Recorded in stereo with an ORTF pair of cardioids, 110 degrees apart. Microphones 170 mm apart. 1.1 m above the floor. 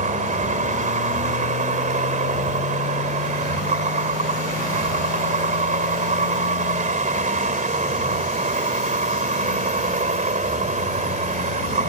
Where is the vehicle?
50° right.